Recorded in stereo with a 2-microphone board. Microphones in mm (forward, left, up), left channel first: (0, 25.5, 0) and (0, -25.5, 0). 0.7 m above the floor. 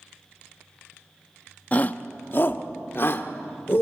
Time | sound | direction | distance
1.7 | a shout | 30° left (ahead or behind) | 0.8 m